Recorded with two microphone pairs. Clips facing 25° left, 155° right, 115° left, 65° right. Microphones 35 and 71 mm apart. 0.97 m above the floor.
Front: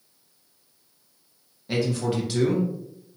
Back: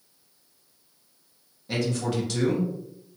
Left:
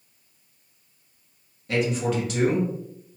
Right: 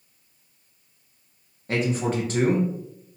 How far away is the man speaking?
About 1.1 m.